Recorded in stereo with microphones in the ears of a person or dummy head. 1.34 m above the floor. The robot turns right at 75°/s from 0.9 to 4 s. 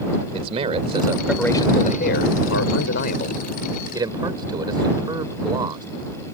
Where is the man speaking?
35° right; by 5.9 s 160° right.